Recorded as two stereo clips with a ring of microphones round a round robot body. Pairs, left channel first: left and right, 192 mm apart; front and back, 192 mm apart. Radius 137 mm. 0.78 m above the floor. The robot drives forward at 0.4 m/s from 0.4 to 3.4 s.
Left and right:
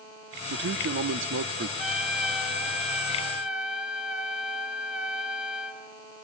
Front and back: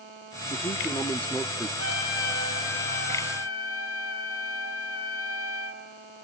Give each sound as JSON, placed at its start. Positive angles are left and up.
{"t": 0.5, "sound": "a man speaking", "azimuth_deg": -70, "distance_m": 1.1}
{"t": 1.8, "sound": "a trumpet", "azimuth_deg": -5, "distance_m": 3.5}